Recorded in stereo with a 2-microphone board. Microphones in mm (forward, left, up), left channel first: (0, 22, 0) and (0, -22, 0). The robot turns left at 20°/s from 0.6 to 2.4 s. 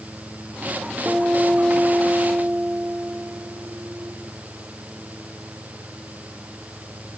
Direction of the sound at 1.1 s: 35° right (ahead or behind).